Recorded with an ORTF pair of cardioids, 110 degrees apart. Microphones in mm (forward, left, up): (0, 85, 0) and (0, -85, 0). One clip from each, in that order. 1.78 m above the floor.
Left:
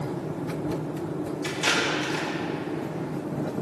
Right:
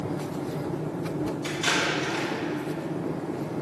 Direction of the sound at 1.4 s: 45° left.